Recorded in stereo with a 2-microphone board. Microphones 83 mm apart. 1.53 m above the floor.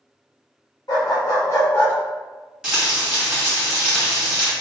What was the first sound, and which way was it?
A dog barking, 50° left (ahead or behind).